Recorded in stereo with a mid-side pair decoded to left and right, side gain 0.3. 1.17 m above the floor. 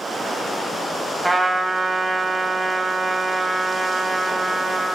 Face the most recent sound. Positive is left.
turn(degrees=-25)